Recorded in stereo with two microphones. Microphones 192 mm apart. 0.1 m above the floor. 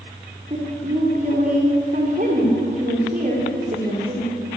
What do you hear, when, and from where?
0.5 s a woman speaking: 40° right (ahead or behind), 10 m